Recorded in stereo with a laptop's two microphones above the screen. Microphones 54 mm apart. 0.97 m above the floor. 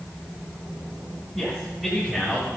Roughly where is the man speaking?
Centre.